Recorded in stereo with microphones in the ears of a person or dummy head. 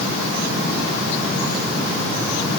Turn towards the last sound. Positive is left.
No sound to turn to.